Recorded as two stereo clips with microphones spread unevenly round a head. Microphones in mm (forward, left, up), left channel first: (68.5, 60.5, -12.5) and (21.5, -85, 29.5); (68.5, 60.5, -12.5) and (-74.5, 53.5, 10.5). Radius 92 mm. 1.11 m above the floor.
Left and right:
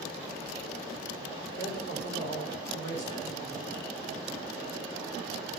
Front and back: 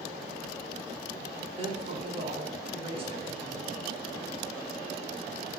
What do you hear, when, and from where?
1.6 s a woman speaking: 135° left, 4.5 m; by 3.7 s 125° left, 5.5 m